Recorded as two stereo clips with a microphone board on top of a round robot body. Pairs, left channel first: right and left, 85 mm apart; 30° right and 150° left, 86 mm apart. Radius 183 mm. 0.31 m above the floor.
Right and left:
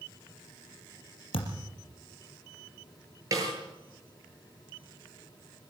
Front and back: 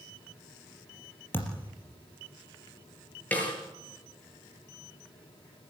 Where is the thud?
100° right, 4 m.